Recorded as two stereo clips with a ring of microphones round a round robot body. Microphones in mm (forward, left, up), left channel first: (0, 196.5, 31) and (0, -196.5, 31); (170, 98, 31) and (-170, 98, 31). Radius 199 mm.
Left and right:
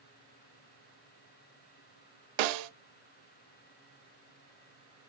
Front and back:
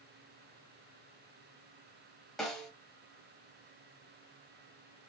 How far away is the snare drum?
About 0.6 m.